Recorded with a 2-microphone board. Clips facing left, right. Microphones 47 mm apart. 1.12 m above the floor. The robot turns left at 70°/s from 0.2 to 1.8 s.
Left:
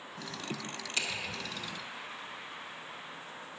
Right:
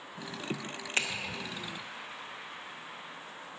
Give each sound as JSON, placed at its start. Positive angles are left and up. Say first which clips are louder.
{"t": 1.0, "sound": "a finger snap", "louder": "right 4 dB", "side_deg": -40, "distance_m": 0.5}